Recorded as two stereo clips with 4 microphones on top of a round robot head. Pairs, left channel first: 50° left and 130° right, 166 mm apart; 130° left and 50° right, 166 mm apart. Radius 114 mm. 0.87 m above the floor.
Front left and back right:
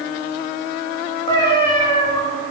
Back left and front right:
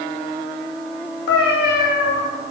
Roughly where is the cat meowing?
Left.